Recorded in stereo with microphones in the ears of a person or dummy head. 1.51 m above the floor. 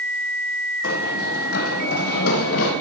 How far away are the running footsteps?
About 4.5 m.